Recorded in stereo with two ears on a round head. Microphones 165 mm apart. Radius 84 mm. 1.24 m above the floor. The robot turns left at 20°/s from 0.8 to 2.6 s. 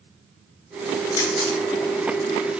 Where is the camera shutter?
55° left (ahead or behind), 2.5 m; by 1.6 s 45° left (ahead or behind), 2.5 m.